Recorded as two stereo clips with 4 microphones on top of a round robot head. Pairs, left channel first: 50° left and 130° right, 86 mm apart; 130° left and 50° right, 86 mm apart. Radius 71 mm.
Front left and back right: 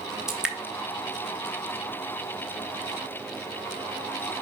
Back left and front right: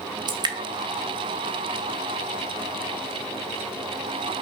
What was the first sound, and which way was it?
Dripping, 50° right.